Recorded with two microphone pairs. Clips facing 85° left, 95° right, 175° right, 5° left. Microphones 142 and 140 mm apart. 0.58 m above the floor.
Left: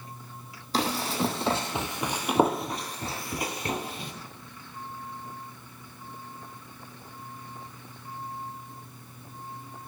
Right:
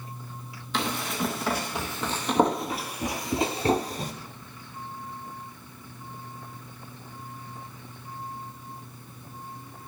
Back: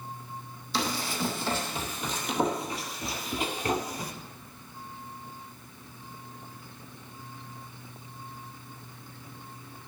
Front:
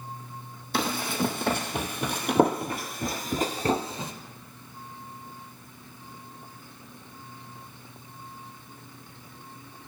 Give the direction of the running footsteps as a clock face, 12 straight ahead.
11 o'clock.